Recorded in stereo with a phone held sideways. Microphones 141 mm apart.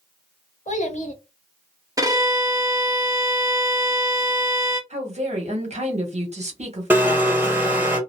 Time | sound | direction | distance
0.7 | a child speaking | 60° left (ahead or behind) | 0.9 m
2.0 | a violin | 25° right (ahead or behind) | 0.6 m
4.9 | a woman speaking | 50° right (ahead or behind) | 1.1 m
6.9 | a blender | 15° right (ahead or behind) | 0.9 m